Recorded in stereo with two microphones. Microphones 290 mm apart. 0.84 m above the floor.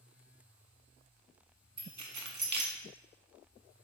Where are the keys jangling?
80° right, 0.5 m.